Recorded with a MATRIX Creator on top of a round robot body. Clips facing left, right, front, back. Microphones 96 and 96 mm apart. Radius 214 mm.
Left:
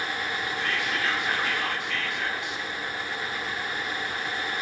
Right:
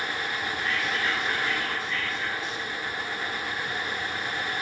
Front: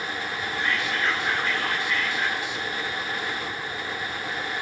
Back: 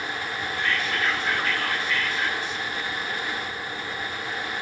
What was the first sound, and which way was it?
Whispering, 75° left.